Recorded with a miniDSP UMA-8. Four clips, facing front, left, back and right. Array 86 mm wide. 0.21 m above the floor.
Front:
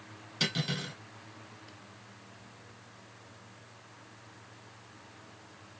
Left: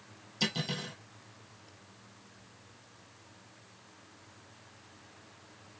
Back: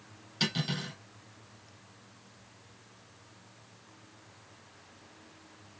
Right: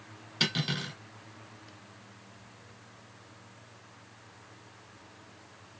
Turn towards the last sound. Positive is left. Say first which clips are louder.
# right 2 dB, back 1 dB
turn(degrees=-85)